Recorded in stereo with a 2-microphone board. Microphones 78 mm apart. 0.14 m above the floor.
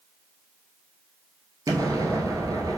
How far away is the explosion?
About 0.7 m.